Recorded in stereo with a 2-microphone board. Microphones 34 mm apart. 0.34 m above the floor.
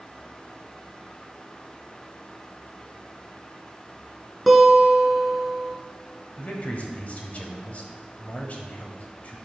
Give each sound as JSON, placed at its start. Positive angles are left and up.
{"t": 4.5, "sound": "a guitar", "side_deg": -5, "distance_m": 1.2}
{"t": 6.4, "sound": "a man speaking", "side_deg": 45, "distance_m": 1.3}